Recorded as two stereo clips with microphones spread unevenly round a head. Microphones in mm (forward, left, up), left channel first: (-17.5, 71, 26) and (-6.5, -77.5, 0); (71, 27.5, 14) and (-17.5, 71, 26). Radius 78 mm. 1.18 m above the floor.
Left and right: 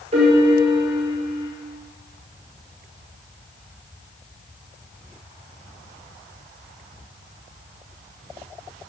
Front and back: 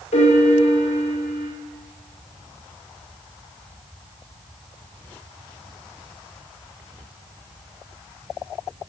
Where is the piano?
35° right, 5 m.